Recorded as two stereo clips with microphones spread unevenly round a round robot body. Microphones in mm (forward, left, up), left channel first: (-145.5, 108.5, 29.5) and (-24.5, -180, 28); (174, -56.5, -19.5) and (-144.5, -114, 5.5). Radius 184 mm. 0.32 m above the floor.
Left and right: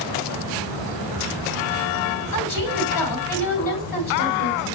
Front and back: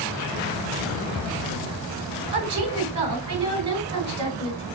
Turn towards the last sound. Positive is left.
turn(degrees=115)